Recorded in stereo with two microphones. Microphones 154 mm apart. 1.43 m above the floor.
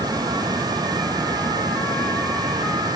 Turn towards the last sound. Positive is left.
No sound to turn to.